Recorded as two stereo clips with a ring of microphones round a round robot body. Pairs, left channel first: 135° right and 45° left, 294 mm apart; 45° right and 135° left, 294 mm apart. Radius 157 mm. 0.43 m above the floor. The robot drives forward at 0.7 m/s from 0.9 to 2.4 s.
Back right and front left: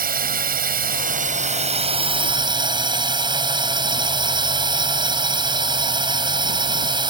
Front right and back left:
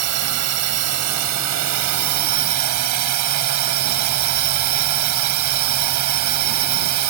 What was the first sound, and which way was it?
A drone, 105° left.